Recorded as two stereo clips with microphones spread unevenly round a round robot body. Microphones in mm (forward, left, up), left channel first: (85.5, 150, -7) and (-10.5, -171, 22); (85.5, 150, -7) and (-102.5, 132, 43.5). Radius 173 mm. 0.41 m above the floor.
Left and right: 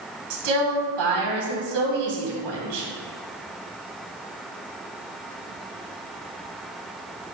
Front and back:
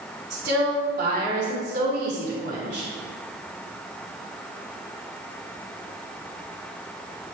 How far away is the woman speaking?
About 3.5 m.